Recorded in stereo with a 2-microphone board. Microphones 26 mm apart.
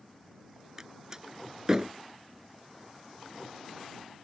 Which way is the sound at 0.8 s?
25° right (ahead or behind).